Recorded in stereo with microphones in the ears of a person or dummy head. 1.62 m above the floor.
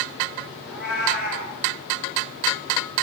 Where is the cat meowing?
Centre (ahead or behind), 2.0 m.